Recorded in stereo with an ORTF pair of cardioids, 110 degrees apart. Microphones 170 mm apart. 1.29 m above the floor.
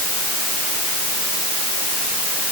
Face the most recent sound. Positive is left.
No sound to turn to.